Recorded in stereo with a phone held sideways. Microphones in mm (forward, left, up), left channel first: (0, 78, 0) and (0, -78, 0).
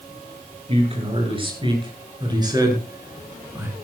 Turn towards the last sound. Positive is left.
turn(degrees=-15)  # may be behind; listen again after turning